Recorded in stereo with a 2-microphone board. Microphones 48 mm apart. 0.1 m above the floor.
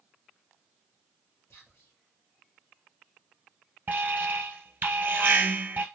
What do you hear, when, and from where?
1.5 s whispering: 55° left (ahead or behind), 2.5 m
3.9 s an alarm: 40° right (ahead or behind), 1.3 m